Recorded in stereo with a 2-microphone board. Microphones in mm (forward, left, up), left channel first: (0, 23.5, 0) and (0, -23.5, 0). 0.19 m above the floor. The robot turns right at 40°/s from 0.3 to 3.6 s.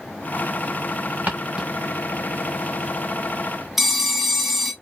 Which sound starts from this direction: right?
Footsteps, at 1.3 s.